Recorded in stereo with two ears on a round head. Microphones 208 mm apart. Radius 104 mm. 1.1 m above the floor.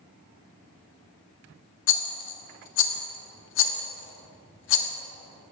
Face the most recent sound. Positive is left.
turn(degrees=55)  # may be behind; listen again after turning